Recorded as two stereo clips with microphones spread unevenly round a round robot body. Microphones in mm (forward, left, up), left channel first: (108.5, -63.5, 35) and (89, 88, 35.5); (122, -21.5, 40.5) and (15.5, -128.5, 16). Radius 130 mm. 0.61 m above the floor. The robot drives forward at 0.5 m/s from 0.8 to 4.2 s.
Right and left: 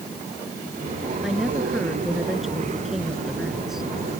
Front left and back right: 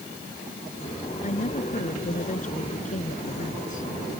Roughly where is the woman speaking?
Ahead.